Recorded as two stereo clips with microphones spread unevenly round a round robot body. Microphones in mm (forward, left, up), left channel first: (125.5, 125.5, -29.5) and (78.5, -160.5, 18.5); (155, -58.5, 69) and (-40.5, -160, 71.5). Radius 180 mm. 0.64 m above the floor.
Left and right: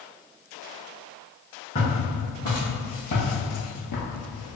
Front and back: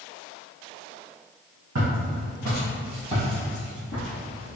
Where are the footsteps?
160° left, 1.6 m; by 4.6 s 45° left, 1.1 m.